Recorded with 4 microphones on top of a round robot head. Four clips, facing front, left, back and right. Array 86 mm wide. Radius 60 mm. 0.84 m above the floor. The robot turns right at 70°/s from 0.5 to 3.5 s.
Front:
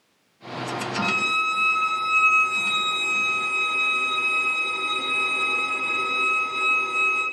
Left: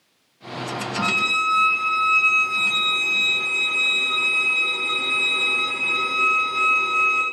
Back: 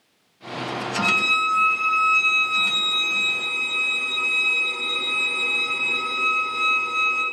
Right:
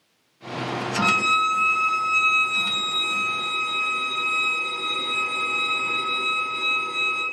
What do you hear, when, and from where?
1.0 s a violin: 85° right, 1.0 m; by 7.2 s 85° left, 1.0 m